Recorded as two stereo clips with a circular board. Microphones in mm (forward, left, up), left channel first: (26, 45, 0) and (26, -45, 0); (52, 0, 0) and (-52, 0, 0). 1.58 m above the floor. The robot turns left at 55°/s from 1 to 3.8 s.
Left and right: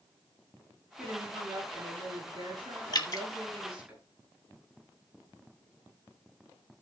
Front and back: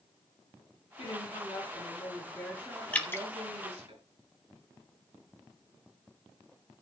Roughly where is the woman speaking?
Ahead.